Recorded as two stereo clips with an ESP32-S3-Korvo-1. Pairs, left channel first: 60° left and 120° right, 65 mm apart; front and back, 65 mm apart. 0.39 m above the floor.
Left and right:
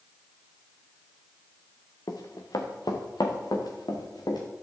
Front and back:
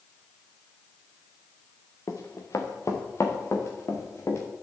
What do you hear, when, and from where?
2.1 s running footsteps: 40° left, 2.5 m; by 4.4 s 45° left, 4 m